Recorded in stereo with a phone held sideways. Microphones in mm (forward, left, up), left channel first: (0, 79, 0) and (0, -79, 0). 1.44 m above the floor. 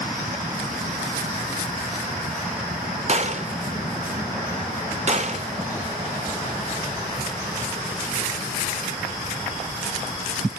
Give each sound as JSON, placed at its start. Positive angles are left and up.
{"t": 3.1, "sound": "a gunshot", "side_deg": -45, "distance_m": 0.5}